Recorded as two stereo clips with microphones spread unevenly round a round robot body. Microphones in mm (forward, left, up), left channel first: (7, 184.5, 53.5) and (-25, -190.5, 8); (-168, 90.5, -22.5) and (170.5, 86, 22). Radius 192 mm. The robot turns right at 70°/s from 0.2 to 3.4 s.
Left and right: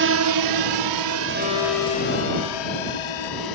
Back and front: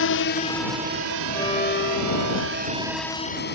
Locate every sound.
0.0 s a drone: 140° right; by 3.5 s 120° left
1.3 s a violin: 95° left; by 2.7 s 170° right